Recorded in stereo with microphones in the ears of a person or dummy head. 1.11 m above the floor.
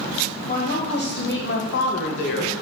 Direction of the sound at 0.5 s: 35° left (ahead or behind).